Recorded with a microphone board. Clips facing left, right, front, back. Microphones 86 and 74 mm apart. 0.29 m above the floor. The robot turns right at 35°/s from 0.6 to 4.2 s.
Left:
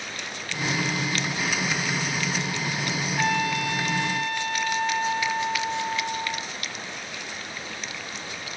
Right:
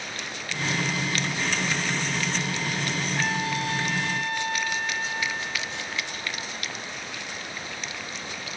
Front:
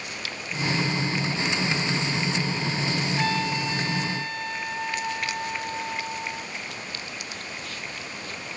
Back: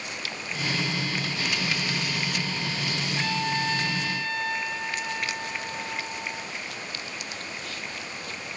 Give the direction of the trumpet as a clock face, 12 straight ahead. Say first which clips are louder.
Left 5 dB, back 1 dB; 4 o'clock.